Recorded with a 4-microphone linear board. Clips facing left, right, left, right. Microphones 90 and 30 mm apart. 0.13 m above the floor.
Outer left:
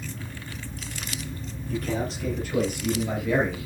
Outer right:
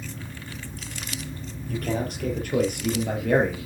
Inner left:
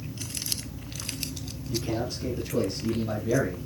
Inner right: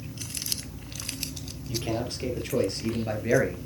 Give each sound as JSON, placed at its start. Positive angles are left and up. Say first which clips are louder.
{"t": 1.7, "sound": "a man speaking", "louder": "even, even", "side_deg": -50, "distance_m": 4.0}